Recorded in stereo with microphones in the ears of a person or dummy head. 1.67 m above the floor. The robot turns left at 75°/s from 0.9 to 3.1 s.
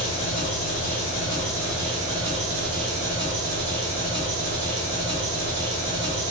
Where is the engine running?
60° left, 1.5 m; by 6.3 s 105° right, 1.5 m.